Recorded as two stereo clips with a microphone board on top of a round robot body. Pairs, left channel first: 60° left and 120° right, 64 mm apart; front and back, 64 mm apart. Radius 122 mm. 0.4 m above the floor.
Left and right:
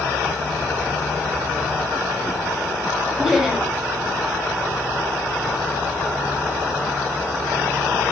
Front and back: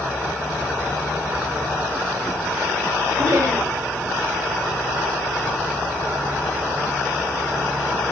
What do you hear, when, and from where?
3.2 s laughter: 160° left, 2.5 m